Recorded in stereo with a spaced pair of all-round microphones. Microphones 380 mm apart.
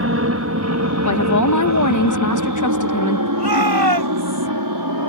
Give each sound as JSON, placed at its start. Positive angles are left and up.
{"t": 0.0, "sound": "an aircraft", "side_deg": -35}
{"t": 1.1, "sound": "a woman speaking", "side_deg": 50}
{"t": 3.4, "sound": "a shout", "side_deg": -85}